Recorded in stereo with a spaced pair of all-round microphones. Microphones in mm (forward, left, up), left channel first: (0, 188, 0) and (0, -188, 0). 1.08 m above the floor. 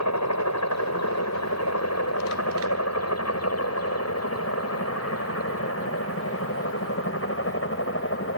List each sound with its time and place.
0.0 s a helicopter: 45° left (ahead or behind); by 8.4 s 35° left (ahead or behind)